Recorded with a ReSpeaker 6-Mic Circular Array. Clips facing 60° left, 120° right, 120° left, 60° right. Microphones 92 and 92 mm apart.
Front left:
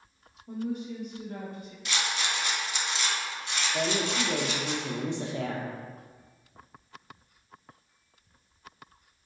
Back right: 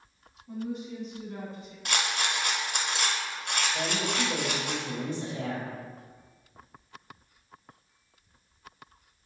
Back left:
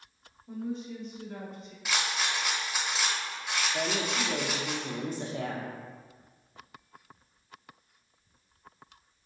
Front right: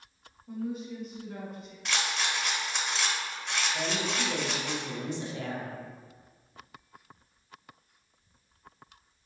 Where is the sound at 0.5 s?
20° left, 1.5 m; by 1.8 s 30° left, 2.5 m.